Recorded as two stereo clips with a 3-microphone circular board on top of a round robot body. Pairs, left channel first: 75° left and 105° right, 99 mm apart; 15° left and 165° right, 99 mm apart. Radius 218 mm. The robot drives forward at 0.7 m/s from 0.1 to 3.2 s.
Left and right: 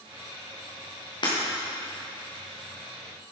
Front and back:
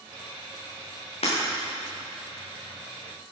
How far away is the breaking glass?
About 5 m.